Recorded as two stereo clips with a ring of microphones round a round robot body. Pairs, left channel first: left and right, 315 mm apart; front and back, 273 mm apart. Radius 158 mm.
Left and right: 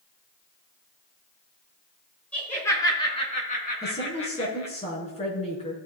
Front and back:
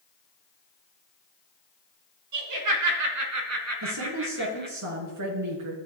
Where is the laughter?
175° left, 4.5 m; by 4.8 s 125° left, 3.5 m.